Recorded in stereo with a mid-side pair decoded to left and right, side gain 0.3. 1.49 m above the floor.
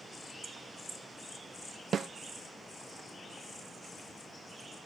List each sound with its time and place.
1.9 s a snare drum: 65° right